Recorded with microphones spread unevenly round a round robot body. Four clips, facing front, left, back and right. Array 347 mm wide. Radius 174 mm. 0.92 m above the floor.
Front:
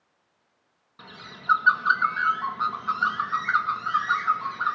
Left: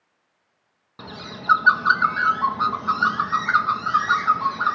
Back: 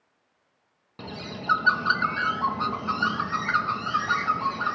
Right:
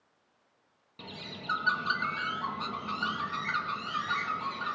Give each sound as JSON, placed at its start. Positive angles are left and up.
{"t": 1.0, "sound": "a bird", "azimuth_deg": 145, "distance_m": 1.0}